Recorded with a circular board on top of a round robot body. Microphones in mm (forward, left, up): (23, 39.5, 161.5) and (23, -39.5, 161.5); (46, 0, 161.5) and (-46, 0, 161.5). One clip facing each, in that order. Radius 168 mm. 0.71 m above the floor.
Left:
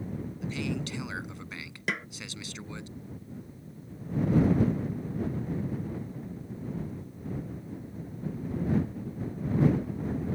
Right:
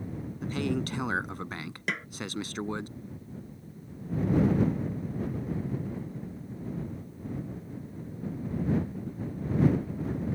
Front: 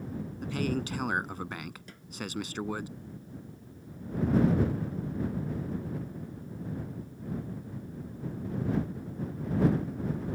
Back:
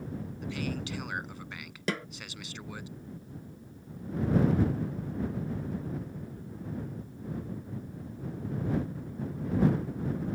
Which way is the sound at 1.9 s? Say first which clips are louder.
Left 1 dB, back 19 dB; straight behind.